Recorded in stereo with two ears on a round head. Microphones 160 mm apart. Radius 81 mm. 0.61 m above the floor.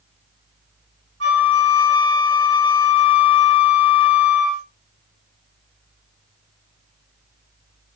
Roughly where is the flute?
Right.